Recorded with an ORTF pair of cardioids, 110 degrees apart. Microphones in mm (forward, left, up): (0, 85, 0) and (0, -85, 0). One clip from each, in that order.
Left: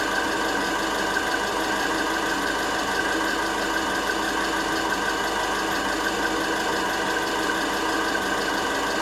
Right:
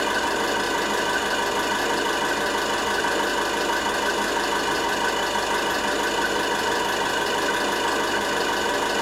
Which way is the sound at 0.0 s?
55° right.